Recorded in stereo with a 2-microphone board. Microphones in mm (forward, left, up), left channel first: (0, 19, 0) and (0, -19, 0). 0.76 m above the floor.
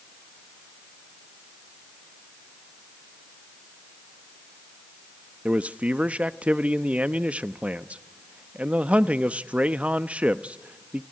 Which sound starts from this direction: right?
A man speaking, at 5.5 s.